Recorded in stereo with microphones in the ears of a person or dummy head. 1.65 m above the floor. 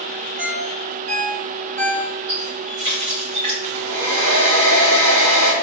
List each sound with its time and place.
0.4 s a ringtone: 35° right (ahead or behind), 1.2 m
2.3 s a running tap: 35° right (ahead or behind), 1.9 m
3.6 s a hair dryer: 50° right (ahead or behind), 1.9 m